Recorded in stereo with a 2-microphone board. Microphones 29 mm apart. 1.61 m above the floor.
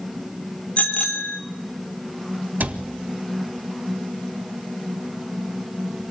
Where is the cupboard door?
75° right (ahead or behind), 1.7 m.